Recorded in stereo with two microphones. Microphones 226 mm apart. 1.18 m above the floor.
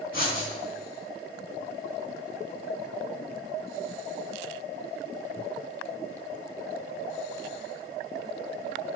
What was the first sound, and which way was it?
Writing, 65° left (ahead or behind).